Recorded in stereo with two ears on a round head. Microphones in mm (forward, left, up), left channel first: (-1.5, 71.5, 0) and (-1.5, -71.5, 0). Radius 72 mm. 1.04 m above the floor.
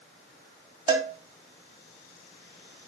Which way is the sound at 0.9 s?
25° right (ahead or behind).